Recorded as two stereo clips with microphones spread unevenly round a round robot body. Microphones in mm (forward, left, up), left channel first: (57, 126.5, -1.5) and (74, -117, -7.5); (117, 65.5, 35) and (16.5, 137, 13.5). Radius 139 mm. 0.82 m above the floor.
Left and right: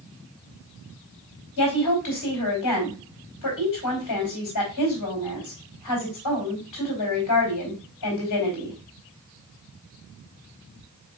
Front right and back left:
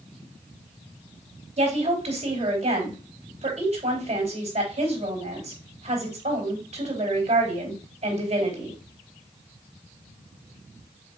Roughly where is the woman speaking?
Behind left.